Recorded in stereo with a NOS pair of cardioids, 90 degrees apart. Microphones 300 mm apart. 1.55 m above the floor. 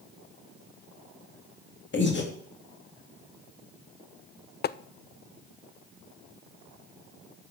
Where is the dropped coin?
No dropped coin in this recording.